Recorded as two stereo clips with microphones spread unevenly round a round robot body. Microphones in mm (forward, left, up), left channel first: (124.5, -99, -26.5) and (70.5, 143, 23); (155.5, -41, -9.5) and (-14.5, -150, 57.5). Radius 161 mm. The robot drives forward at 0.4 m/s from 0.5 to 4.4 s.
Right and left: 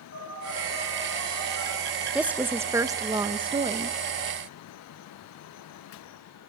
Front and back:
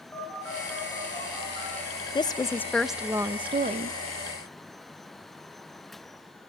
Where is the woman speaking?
5° left, 0.7 m; by 4.0 s 170° left, 0.6 m.